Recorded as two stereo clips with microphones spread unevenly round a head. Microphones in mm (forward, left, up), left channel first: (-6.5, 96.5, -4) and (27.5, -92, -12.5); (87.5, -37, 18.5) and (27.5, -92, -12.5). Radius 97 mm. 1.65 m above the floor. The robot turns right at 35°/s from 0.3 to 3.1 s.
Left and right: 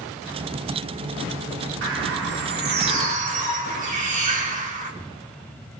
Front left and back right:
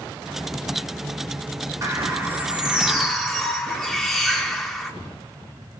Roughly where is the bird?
Right.